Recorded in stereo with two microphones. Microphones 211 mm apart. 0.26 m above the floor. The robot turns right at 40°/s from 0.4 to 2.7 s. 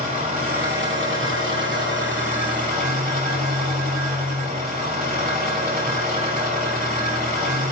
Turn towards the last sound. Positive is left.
turn(degrees=-45)